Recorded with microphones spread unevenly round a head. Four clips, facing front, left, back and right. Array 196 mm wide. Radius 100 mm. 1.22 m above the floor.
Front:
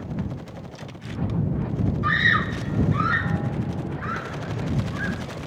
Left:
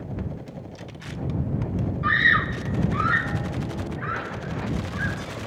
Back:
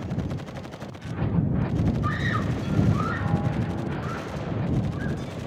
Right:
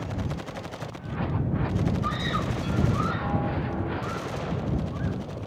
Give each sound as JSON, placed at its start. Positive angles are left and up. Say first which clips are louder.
{"t": 2.0, "sound": "a scream", "louder": "left 6 dB, front 5 dB", "azimuth_deg": 55}